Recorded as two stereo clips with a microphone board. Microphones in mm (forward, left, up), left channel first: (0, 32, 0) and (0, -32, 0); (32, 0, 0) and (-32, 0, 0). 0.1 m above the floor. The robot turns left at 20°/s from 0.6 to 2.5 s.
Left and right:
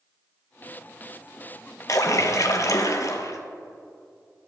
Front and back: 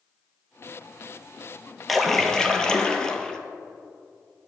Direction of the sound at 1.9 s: 90° left.